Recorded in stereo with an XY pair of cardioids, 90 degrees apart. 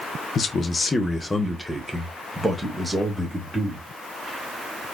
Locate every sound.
0.3 s a man speaking: 60° left, 0.8 m; by 3.9 s 10° right, 2.5 m